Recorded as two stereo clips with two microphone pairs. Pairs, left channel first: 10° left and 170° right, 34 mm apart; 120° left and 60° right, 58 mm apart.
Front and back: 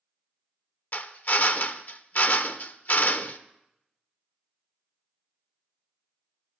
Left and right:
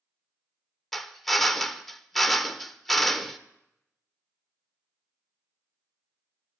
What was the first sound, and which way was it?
A drill, 35° left.